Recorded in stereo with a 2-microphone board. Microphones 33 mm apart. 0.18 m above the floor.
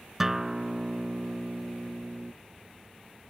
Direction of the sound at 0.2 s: 10° right (ahead or behind).